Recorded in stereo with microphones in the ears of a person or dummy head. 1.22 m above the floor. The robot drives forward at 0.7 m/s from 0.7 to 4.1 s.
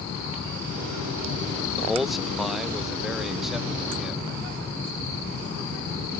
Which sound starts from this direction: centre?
A man speaking, at 1.8 s.